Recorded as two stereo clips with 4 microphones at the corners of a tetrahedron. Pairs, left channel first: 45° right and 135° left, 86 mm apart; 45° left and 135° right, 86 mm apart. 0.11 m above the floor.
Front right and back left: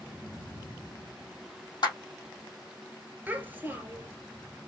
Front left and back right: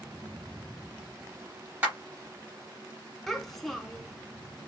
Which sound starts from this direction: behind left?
A child speaking, at 3.3 s.